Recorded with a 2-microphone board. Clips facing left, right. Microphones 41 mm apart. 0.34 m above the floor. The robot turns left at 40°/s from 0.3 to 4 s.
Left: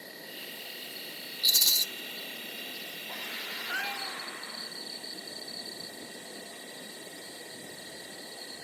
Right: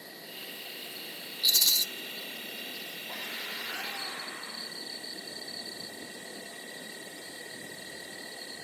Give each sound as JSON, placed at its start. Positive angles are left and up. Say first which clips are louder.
{"t": 0.0, "sound": "an insect", "louder": "left 1 dB", "azimuth_deg": -5, "distance_m": 6.5}
{"t": 1.4, "sound": "a rattle", "louder": "even", "side_deg": 10, "distance_m": 0.7}
{"t": 3.7, "sound": "a cat meowing", "louder": "left 3 dB", "side_deg": 75, "distance_m": 2.5}